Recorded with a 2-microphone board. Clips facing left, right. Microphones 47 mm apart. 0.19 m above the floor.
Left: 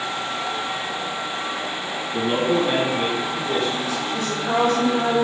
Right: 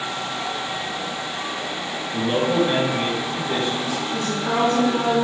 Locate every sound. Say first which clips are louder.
2.1 s a man speaking: even; 20° left (ahead or behind), 1.5 m; by 4.0 s 10° right (ahead or behind), 2 m
4.1 s a woman speaking: left 1 dB; 25° right (ahead or behind), 1.6 m